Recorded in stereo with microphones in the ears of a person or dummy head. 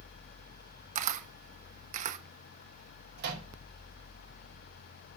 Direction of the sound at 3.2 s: 60° right (ahead or behind).